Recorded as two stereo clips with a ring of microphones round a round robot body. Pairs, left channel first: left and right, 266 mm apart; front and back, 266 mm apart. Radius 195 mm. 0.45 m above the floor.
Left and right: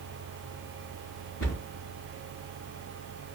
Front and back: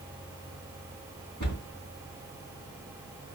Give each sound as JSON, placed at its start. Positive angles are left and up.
{"t": 1.4, "sound": "a cupboard door", "azimuth_deg": 55, "distance_m": 3.5}